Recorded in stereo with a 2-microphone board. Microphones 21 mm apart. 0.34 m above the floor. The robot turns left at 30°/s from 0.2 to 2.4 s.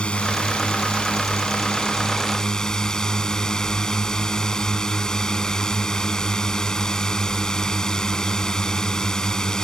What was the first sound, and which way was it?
A drone, 100° left.